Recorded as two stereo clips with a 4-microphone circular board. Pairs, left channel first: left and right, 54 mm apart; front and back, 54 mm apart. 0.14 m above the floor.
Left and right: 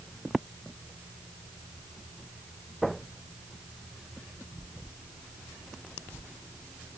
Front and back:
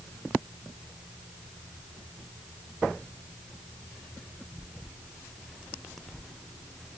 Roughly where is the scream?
I don't hear a scream.